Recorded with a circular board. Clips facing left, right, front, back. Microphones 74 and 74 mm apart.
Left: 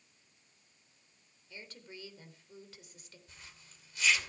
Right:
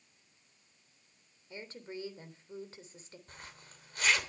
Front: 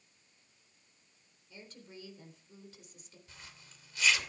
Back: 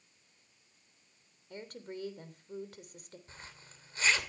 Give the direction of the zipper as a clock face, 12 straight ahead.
4 o'clock.